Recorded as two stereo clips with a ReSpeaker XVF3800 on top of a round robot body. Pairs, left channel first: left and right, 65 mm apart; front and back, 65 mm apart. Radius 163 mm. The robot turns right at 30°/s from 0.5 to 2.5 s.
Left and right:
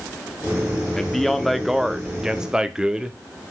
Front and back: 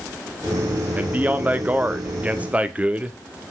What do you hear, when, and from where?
0.9 s a man speaking: 165° left, 0.9 m; by 3.2 s 145° right, 0.9 m